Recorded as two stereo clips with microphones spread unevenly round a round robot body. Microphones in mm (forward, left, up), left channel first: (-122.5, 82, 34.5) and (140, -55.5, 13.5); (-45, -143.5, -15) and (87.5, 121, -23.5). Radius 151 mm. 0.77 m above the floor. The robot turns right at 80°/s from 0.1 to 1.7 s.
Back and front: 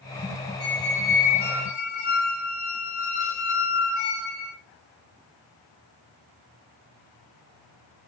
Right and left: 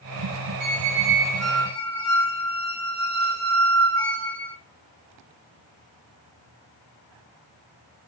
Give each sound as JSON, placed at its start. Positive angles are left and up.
{"t": 0.6, "sound": "a squeak", "azimuth_deg": 85, "distance_m": 0.9}